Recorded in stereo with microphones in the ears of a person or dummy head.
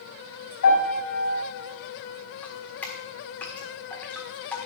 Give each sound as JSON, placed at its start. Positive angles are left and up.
{"t": 0.6, "sound": "a piano", "side_deg": 75, "distance_m": 5.5}
{"t": 2.4, "sound": "dripping", "side_deg": 10, "distance_m": 1.6}